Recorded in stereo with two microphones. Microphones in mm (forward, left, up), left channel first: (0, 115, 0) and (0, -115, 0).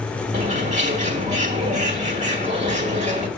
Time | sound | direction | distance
0.3 | a bird | 35° right (ahead or behind) | 1.4 m